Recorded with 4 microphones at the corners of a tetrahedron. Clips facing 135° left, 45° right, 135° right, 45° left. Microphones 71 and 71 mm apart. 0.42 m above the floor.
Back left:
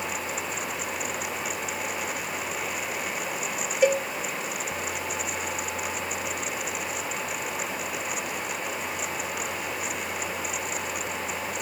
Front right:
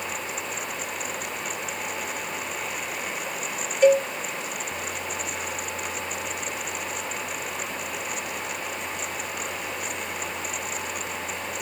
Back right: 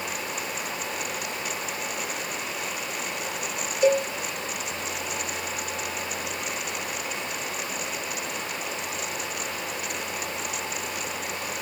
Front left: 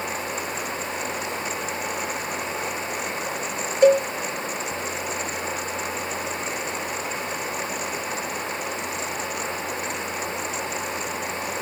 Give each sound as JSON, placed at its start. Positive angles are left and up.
{"t": 3.8, "sound": "a cowbell", "azimuth_deg": 55, "distance_m": 0.8}